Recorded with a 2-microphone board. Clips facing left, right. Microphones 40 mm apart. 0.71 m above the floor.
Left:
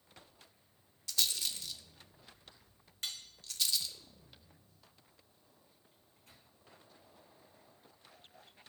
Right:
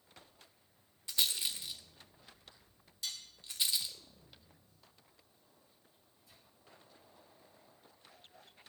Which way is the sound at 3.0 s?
50° left (ahead or behind).